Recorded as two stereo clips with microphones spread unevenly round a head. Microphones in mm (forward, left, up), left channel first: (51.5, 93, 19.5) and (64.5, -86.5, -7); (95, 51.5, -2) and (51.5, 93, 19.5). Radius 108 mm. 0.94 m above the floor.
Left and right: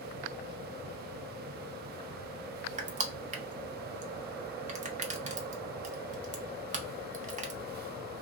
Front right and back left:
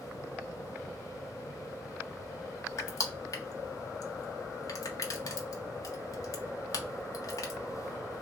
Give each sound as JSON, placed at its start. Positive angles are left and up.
{"t": 2.8, "sound": "crushing", "azimuth_deg": -35, "distance_m": 0.6}